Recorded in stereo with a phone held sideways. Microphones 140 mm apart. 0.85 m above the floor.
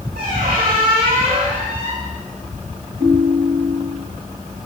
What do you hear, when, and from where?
0.1 s a squeak: 85° right, 5 m
3.0 s a ringtone: 70° right (ahead or behind), 6 m